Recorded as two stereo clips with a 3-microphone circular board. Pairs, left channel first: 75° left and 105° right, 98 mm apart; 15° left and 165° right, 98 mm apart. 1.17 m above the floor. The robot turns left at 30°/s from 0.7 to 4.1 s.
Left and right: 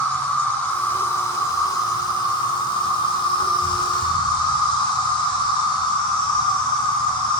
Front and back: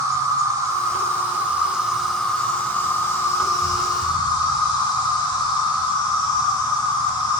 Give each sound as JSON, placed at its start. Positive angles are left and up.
{"t": 0.0, "sound": "an insect", "azimuth_deg": 150, "distance_m": 1.5}